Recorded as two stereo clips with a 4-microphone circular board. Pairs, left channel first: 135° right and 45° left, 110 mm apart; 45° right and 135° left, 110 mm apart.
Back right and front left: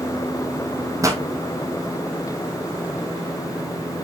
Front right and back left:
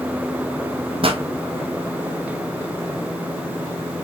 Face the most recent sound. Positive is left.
turn(degrees=105)